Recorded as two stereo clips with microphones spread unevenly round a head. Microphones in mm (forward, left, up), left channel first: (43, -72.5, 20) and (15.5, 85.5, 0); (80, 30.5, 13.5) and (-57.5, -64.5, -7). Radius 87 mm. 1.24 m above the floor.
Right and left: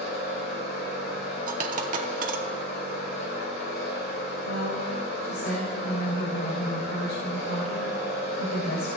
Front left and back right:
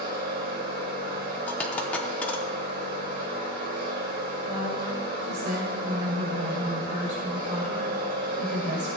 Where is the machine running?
115° right, 2.5 m.